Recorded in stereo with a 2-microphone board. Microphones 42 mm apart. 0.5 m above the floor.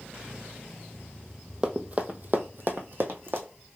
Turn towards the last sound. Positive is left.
turn(degrees=-60)  # may be behind; listen again after turning